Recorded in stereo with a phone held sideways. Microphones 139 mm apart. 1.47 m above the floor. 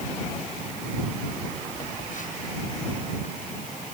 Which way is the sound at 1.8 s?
65° left (ahead or behind).